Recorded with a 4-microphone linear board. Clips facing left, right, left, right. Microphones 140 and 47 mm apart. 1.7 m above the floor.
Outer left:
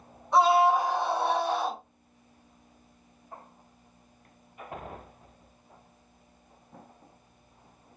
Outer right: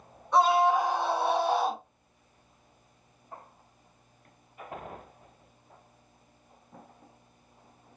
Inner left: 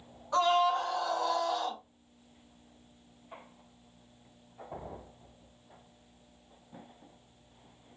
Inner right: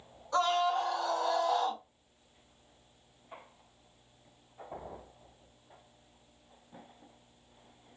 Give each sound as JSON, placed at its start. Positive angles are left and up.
{"t": 0.3, "sound": "a scream", "side_deg": 15, "distance_m": 1.9}